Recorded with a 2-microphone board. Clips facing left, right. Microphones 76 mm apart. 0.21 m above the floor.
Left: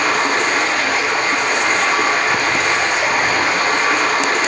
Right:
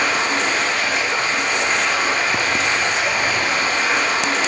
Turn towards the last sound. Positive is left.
turn(degrees=60)  # may be behind; listen again after turning